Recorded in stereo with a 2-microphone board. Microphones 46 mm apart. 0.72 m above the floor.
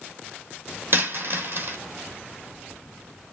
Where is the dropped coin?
55° right (ahead or behind), 1.2 m.